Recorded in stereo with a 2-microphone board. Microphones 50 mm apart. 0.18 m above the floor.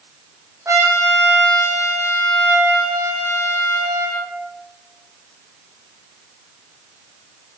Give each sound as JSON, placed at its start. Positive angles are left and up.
{"t": 0.7, "sound": "a trumpet", "side_deg": -80, "distance_m": 7.5}